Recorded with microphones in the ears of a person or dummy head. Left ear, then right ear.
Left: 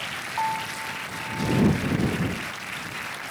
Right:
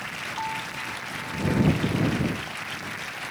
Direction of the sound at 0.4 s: 25° left (ahead or behind).